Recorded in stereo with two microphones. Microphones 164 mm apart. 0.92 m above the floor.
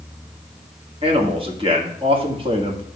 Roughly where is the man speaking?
Right.